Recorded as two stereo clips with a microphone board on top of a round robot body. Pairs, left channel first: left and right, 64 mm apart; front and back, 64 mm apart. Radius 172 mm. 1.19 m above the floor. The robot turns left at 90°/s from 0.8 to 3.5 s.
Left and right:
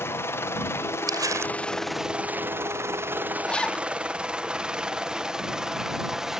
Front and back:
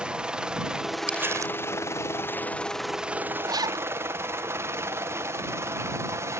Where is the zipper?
170° left; by 3.9 s 165° left.